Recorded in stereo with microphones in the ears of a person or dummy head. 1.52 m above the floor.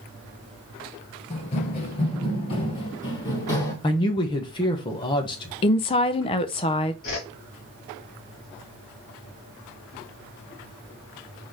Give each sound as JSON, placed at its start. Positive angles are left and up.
{"t": 1.3, "sound": "running footsteps", "side_deg": 35, "distance_m": 1.8}
{"t": 3.8, "sound": "a man speaking", "side_deg": 25, "distance_m": 1.1}
{"t": 5.6, "sound": "a woman speaking", "side_deg": 30, "distance_m": 0.5}
{"t": 7.0, "sound": "a whoosh", "side_deg": 65, "distance_m": 1.9}